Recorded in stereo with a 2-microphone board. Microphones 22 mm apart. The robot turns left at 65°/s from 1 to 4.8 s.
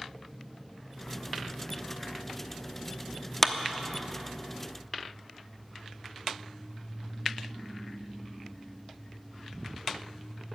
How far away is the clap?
About 0.9 m.